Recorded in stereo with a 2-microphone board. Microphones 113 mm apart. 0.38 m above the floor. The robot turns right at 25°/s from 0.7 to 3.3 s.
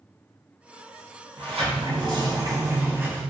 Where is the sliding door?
60° right, 0.6 m; by 3.2 s 15° right, 0.6 m.